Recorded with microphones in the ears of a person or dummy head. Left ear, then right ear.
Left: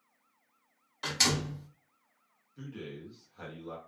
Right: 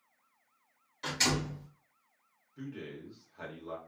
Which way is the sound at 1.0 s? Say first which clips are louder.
Left 2 dB; 40° left (ahead or behind).